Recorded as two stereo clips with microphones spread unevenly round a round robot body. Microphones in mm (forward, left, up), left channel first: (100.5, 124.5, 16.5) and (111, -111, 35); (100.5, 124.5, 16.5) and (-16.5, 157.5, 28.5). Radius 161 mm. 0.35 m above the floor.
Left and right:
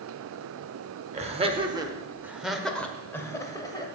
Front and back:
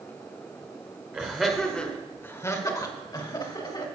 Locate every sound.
1.1 s laughter: 120° right, 1.0 m; by 3.9 s 25° left, 1.6 m